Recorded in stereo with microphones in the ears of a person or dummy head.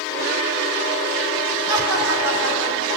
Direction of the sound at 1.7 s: 80° right.